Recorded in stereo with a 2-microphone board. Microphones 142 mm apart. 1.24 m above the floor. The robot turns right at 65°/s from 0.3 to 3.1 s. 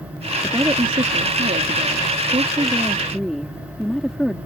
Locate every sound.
0.4 s a woman speaking: 170° right; by 4.4 s straight ahead